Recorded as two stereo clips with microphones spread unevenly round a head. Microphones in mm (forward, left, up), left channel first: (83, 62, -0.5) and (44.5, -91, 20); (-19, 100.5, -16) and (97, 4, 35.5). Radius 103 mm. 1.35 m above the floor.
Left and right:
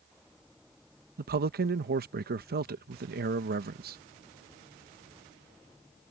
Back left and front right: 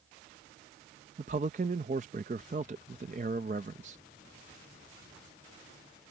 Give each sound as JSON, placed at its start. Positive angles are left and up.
{"t": 1.2, "sound": "a man speaking", "azimuth_deg": -90}